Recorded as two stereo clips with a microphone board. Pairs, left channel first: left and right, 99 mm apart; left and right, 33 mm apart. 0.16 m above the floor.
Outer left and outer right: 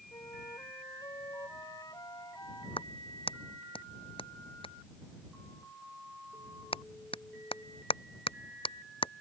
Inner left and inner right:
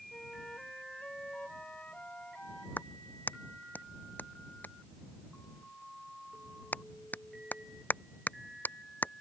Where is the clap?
65° left (ahead or behind).